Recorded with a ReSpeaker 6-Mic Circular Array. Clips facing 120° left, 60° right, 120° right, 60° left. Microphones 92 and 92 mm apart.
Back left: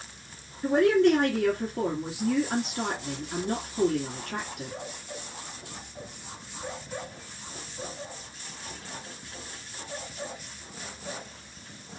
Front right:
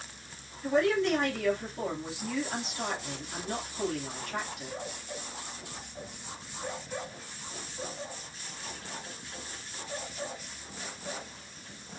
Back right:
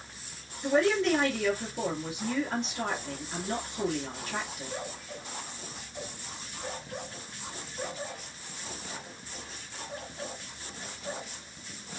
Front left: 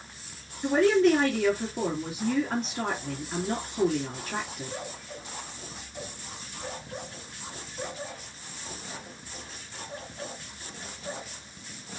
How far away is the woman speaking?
About 2 m.